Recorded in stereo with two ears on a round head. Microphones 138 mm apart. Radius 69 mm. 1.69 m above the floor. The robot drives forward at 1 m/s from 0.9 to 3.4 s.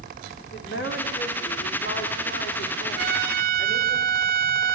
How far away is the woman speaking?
About 5.5 m.